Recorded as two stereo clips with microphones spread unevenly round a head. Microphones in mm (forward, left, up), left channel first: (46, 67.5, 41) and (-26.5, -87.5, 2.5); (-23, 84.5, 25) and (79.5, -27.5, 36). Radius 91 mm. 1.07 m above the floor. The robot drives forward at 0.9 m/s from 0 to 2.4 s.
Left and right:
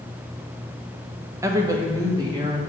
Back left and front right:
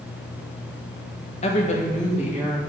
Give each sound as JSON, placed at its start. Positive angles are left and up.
{"t": 1.4, "sound": "a woman speaking", "azimuth_deg": 175, "distance_m": 1.3}